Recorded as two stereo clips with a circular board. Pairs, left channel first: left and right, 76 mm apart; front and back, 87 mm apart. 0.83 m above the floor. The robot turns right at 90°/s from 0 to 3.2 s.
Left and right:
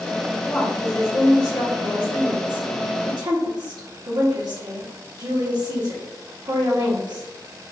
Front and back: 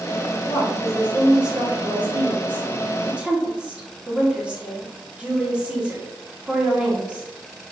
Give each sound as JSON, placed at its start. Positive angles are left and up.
{"t": 0.5, "sound": "a woman speaking", "azimuth_deg": 10, "distance_m": 1.8}